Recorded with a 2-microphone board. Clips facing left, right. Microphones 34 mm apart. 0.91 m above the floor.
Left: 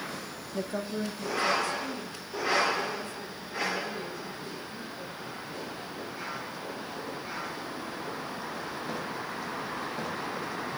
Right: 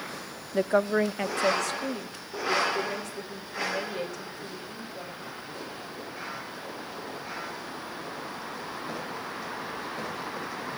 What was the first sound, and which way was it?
A woman speaking, 35° right (ahead or behind).